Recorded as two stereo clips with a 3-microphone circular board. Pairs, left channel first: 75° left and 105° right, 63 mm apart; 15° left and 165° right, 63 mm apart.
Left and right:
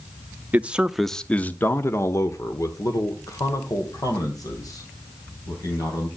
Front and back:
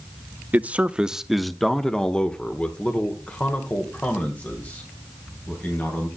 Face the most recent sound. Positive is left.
turn(degrees=75)